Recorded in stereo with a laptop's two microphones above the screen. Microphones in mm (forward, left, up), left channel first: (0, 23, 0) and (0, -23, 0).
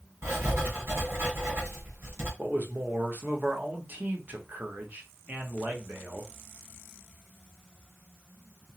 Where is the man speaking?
40° right (ahead or behind), 0.7 m.